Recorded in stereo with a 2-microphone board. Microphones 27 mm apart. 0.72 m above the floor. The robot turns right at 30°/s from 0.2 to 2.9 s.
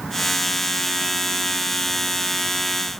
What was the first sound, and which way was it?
Only background noise.